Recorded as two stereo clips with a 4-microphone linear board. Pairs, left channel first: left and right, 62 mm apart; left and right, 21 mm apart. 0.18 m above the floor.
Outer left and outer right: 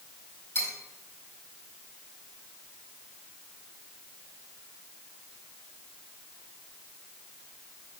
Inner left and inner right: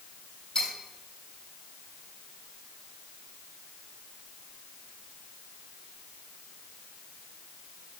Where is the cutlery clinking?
40° left (ahead or behind), 4 m.